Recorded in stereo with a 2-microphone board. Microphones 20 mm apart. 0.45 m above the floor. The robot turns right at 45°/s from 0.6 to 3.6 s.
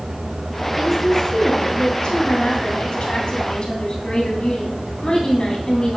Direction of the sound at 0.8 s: 5° right.